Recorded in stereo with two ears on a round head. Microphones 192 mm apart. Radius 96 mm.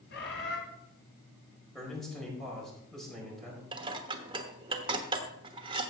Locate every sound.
0.1 s a bird: 55° left (ahead or behind), 2 m
1.8 s a man speaking: centre (ahead or behind), 4 m
3.7 s dishes clattering: 25° right (ahead or behind), 1.2 m